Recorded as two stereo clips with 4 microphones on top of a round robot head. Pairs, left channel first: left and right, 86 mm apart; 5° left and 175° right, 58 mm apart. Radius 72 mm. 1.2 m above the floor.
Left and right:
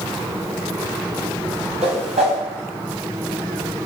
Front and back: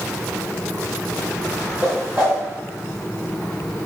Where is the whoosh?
100° right, 2.5 m.